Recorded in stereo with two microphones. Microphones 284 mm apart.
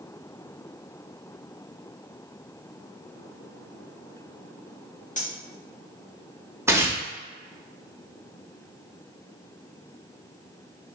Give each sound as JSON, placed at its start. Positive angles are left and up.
{"t": 5.2, "sound": "cutlery clinking", "side_deg": 25, "distance_m": 0.6}
{"t": 6.7, "sound": "tearing paper", "side_deg": -10, "distance_m": 0.5}